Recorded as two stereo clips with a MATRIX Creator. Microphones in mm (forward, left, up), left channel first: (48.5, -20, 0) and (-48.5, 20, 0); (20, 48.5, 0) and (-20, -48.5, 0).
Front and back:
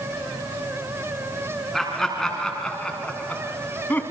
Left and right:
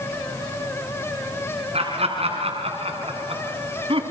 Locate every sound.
1.7 s laughter: 110° right, 4.5 m; by 4.0 s 95° right, 3.5 m